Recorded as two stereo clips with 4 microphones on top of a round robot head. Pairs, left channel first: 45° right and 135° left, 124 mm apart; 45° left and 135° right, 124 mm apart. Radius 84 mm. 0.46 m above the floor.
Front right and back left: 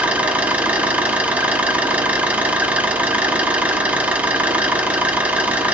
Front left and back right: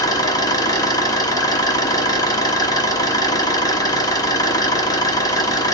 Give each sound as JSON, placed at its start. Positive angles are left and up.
{"t": 0.0, "sound": "an engine running", "azimuth_deg": 65, "distance_m": 0.9}